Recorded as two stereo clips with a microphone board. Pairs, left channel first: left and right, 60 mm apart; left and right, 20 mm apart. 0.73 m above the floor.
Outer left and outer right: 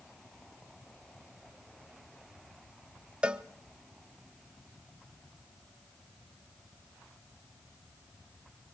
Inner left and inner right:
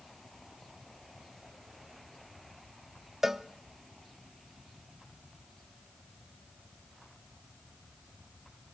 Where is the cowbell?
20° right (ahead or behind), 0.5 m.